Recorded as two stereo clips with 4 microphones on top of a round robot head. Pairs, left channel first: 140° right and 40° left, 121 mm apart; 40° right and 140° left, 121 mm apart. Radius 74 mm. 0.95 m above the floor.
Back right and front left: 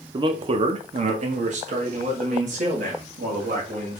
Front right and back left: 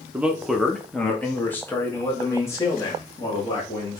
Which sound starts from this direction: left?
A man speaking, at 0.1 s.